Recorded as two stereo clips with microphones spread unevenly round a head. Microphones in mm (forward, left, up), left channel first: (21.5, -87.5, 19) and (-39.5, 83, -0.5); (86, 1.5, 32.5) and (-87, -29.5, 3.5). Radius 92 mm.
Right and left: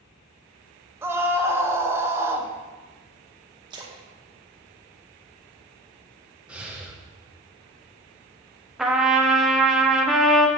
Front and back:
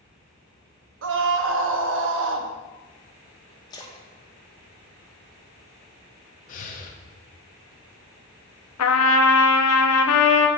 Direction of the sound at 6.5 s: 20° left.